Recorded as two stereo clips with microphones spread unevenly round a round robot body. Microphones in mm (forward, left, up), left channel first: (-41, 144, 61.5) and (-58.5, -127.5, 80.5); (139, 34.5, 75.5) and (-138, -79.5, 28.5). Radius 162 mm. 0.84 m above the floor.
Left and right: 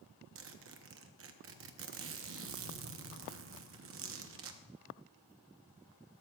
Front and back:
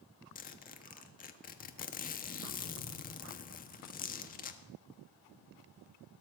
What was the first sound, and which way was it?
A zipper, 45° right.